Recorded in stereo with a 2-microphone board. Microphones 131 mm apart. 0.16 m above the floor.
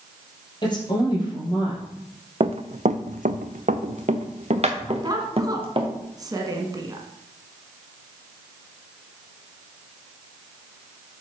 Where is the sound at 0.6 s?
35° left (ahead or behind), 4 m.